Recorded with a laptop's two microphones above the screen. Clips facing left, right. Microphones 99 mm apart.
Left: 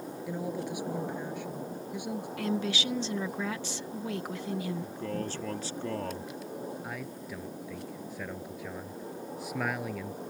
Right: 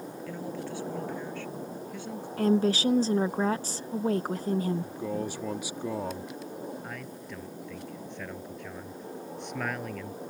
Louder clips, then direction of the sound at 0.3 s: Left 3 dB; 15° left (ahead or behind).